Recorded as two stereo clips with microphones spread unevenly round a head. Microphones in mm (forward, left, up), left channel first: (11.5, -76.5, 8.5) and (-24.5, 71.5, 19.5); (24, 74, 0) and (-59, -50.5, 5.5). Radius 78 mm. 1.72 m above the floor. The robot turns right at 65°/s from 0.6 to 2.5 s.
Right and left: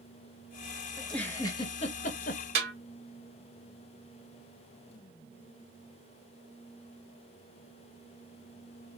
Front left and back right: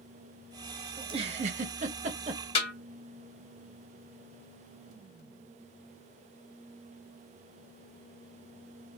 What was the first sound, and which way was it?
A giggle, 175° right.